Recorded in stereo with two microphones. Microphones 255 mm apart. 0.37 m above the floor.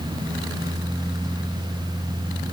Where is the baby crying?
I don't hear a baby crying.